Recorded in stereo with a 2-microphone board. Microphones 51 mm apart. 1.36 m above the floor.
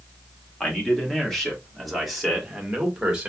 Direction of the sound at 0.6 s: 10° left (ahead or behind).